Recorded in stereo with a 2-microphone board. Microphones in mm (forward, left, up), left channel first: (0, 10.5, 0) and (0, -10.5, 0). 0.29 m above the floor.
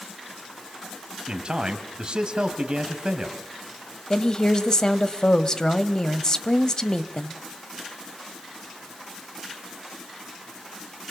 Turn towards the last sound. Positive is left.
turn(degrees=40)  # may be behind; listen again after turning